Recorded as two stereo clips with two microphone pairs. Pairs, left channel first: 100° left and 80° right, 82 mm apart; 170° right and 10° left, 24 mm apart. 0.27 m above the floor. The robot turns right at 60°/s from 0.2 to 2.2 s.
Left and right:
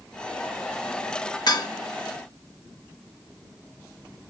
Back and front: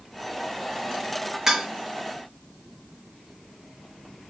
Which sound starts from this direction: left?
Dishes clattering, at 1.5 s.